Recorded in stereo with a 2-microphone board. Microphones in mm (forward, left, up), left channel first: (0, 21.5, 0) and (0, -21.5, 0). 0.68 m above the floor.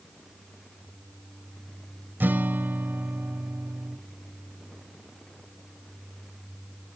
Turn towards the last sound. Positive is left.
turn(degrees=-50)  # may be behind; listen again after turning